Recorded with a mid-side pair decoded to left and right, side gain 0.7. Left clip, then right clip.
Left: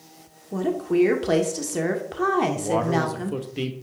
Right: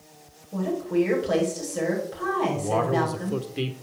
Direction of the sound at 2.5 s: Straight ahead.